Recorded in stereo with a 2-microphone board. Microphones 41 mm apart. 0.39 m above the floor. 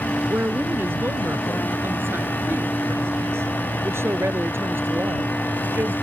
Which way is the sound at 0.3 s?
65° right (ahead or behind).